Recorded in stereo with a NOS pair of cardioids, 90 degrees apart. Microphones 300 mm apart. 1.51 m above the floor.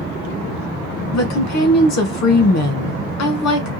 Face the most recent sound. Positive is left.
turn(degrees=60)